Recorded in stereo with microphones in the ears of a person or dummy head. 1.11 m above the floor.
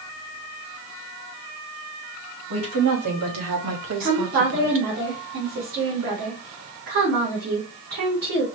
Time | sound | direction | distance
2.5 | a woman speaking | 75° right (ahead or behind) | 2.5 m
4.0 | a woman speaking | 50° right (ahead or behind) | 2.5 m